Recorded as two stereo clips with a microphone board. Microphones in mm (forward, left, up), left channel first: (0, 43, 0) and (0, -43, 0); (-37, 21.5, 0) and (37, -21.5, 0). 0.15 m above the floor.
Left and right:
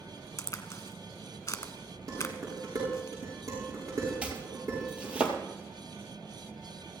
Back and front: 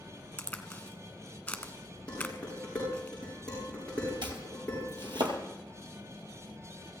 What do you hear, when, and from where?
0.4 s a crack: 90° left, 1.5 m
2.1 s dishes clattering: 130° right, 9.5 m
4.2 s chopping: 15° right, 2.5 m